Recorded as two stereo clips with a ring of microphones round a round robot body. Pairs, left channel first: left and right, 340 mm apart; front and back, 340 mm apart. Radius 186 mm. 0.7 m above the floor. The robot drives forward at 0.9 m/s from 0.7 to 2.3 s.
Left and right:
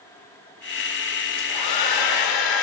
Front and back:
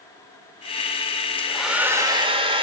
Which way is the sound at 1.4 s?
85° left.